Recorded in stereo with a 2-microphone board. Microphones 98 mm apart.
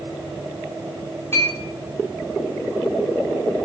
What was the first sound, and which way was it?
A clink, 25° left (ahead or behind).